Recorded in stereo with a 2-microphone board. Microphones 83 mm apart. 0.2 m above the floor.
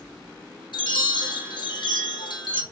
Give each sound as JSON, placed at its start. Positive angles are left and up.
{"t": 0.7, "sound": "a chime", "side_deg": 70, "distance_m": 1.1}